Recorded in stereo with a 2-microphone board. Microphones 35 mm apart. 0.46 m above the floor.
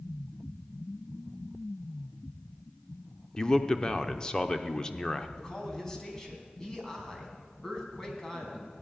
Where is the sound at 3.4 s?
20° left (ahead or behind), 0.8 m.